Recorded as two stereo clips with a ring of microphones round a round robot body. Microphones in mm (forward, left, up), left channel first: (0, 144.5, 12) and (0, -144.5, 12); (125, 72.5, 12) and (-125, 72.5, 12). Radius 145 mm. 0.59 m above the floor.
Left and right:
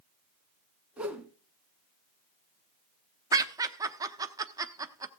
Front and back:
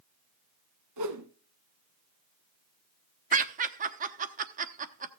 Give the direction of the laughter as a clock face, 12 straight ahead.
5 o'clock.